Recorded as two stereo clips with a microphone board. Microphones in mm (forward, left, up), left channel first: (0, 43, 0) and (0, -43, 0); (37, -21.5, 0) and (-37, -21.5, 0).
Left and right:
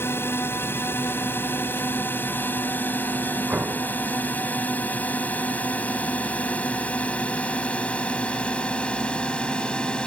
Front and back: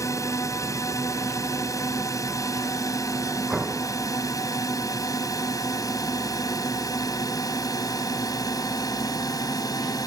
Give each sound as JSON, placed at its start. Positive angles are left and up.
{"t": 0.0, "sound": "a drone", "azimuth_deg": 30}
{"t": 3.5, "sound": "an explosion", "azimuth_deg": -110}